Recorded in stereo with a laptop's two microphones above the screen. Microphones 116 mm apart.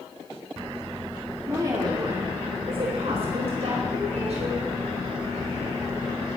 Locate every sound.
1.5 s a woman speaking: 25° right (ahead or behind), 2.5 m; by 4.6 s 70° right (ahead or behind), 6.5 m